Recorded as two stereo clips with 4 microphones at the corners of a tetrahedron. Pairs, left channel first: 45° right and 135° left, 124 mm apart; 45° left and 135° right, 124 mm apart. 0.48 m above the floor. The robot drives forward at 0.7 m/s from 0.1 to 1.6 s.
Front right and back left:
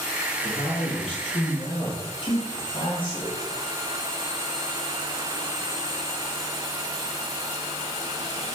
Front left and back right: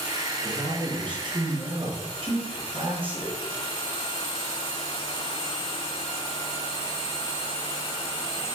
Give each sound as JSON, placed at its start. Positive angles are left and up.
{"t": 0.4, "sound": "a man speaking", "azimuth_deg": -85, "distance_m": 6.5}